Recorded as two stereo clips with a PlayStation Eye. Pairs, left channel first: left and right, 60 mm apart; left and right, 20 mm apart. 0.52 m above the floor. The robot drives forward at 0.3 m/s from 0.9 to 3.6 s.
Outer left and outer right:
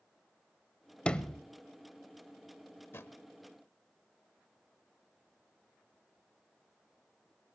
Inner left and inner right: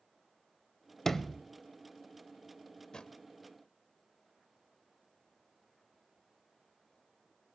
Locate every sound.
1.1 s a sliding door: 15° left (ahead or behind), 0.5 m
2.9 s a drawer: 45° left (ahead or behind), 0.7 m; by 3.2 s 50° left (ahead or behind), 0.6 m